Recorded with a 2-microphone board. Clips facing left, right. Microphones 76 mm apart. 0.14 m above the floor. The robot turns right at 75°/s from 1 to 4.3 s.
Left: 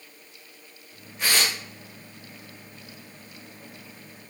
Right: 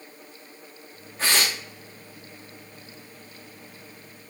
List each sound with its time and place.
1.2 s tearing paper: 35° right (ahead or behind), 5 m; by 1.6 s 5° right (ahead or behind), 5 m